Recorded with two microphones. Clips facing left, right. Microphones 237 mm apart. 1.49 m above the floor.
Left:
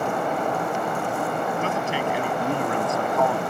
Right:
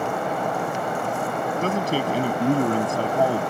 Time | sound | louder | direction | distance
1.6 | a man speaking | right 2 dB | 40° right (ahead or behind) | ?